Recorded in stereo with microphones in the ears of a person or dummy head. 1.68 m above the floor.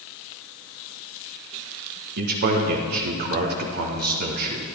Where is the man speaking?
55° right (ahead or behind), 1.4 m.